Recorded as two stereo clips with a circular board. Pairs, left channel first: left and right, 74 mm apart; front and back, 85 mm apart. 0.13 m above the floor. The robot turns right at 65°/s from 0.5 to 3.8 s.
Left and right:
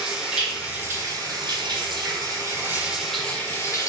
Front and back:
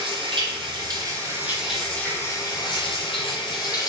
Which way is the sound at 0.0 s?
170° right.